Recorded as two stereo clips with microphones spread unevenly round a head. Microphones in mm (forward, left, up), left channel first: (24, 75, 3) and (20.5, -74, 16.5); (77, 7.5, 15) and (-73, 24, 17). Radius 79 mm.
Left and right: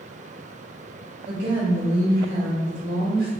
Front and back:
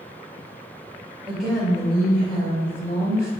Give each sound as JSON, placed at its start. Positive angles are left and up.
{"t": 1.3, "sound": "a woman speaking", "azimuth_deg": -100, "distance_m": 1.5}